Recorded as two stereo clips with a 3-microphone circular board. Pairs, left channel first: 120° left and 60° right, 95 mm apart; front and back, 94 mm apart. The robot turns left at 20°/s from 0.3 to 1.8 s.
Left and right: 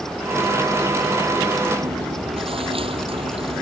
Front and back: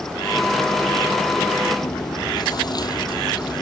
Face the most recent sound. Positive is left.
turn(degrees=-45)